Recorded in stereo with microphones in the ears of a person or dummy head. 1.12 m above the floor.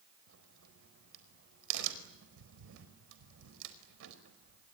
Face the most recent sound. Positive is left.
turn(degrees=-75)  # may be behind; listen again after turning